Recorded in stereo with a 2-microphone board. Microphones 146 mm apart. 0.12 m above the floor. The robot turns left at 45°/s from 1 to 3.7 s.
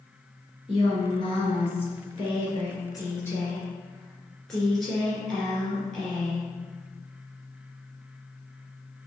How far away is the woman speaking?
About 1.6 m.